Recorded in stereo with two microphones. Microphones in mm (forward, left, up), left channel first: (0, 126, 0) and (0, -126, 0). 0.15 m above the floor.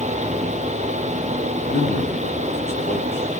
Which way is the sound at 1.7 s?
40° left (ahead or behind).